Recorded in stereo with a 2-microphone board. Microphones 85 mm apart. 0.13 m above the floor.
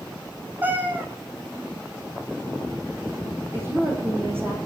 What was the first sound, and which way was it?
A cat meowing, 20° right (ahead or behind).